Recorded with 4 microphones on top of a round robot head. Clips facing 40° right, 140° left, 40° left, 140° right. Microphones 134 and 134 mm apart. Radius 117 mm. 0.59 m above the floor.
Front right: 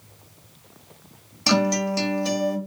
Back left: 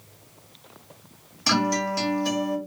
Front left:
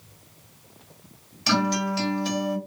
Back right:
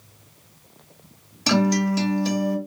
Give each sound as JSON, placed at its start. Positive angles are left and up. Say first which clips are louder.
{"t": 1.5, "sound": "a guitar", "louder": "front right 3 dB, back right 4 dB", "azimuth_deg": -105, "distance_m": 1.2}